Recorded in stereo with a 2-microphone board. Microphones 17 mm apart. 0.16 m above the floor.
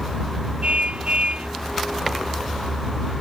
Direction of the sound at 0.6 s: 90° right.